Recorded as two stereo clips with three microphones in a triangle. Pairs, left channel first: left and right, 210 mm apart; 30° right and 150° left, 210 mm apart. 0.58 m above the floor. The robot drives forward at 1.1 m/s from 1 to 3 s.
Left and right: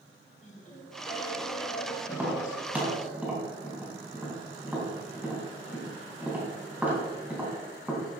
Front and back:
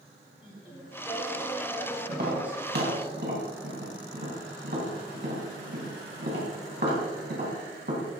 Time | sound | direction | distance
0.4 | singing | 35° left | 3 m
2.1 | tapping | 170° right | 2.5 m